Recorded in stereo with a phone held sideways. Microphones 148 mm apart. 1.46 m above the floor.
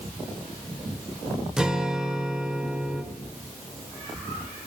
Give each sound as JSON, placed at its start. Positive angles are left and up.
{"t": 1.6, "sound": "a guitar", "side_deg": -5, "distance_m": 2.0}